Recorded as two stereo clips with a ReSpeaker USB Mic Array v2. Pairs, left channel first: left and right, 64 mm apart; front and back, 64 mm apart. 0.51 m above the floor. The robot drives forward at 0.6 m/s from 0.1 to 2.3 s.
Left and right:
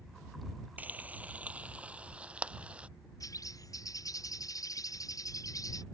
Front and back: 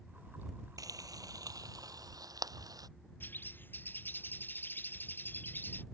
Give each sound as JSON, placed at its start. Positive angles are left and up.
{"t": 0.8, "sound": "frying", "azimuth_deg": -155}
{"t": 3.2, "sound": "a bird", "azimuth_deg": 60}